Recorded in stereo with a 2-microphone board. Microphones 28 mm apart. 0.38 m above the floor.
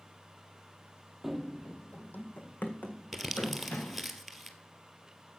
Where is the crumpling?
Centre (ahead or behind), 1.3 m.